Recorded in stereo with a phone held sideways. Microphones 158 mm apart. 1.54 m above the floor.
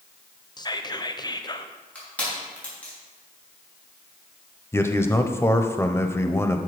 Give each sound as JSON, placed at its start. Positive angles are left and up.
{"t": 0.6, "sound": "whispering", "side_deg": 25, "distance_m": 0.7}
{"t": 1.9, "sound": "crushing", "side_deg": 10, "distance_m": 3.0}
{"t": 4.7, "sound": "a man speaking", "side_deg": 15, "distance_m": 0.7}